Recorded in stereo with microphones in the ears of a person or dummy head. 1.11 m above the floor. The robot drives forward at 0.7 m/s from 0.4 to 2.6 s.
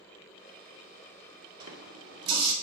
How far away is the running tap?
About 1.9 m.